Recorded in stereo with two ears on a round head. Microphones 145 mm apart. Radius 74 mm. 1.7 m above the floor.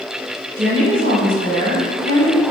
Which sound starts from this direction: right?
A woman speaking, at 0.6 s.